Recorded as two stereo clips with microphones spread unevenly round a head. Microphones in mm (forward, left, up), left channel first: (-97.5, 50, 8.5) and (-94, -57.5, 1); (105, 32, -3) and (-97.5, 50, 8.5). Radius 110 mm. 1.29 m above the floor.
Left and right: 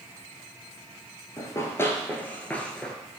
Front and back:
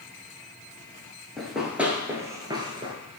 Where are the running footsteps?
90° left, 1.4 m; by 2.9 s 155° left, 1.4 m.